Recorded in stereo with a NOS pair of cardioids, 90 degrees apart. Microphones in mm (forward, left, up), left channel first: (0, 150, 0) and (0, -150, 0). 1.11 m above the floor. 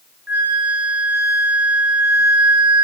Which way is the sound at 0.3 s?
5° right.